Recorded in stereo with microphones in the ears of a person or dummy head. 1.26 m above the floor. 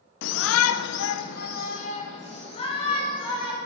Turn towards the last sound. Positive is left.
turn(degrees=25)  # may be behind; listen again after turning